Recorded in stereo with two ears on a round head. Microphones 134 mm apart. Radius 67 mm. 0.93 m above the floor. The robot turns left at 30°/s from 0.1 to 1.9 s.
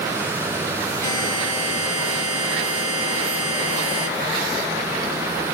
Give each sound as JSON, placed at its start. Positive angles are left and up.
{"t": 1.0, "sound": "a buzzer", "side_deg": 20, "distance_m": 5.5}